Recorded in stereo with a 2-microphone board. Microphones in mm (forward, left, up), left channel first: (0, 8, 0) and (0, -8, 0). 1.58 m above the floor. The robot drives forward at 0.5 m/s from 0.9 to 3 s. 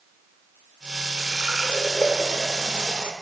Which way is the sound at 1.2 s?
70° right (ahead or behind).